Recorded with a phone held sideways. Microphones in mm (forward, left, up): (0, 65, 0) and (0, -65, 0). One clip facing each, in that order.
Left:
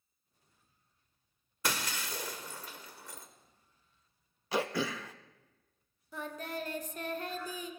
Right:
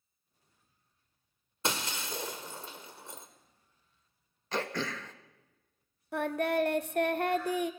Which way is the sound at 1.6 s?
25° right (ahead or behind).